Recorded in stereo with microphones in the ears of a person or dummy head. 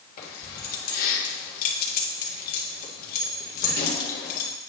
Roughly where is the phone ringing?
I don't hear a phone ringing.